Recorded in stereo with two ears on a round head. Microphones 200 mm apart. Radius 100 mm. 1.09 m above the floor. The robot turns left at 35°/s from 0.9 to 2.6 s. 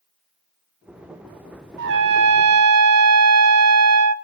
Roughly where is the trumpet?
Right.